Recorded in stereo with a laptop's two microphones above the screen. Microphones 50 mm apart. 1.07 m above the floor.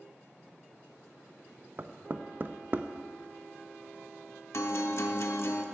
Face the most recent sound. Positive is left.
turn(degrees=60)  # may be behind; listen again after turning